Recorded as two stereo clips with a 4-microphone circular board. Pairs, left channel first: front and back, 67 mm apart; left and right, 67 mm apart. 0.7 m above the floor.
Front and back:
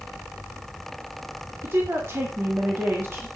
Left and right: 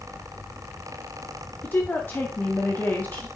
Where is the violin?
I don't hear a violin.